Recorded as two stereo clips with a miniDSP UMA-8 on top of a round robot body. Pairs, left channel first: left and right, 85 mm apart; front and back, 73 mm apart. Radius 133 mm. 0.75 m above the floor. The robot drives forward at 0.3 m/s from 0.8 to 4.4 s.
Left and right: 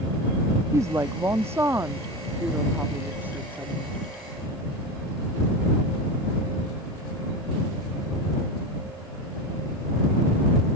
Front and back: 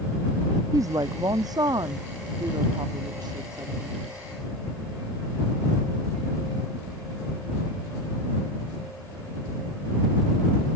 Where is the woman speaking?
145° right; by 4.0 s 160° right.